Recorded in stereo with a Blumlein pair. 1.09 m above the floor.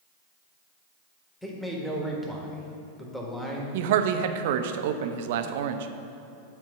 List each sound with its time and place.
1.4 s a man speaking: 5° left, 1.6 m
3.7 s a man speaking: 55° right, 0.7 m